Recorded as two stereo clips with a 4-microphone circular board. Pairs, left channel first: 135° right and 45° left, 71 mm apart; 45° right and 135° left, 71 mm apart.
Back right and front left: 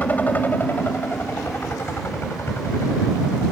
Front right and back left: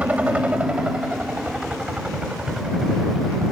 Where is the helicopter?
175° right; by 3.5 s 150° right.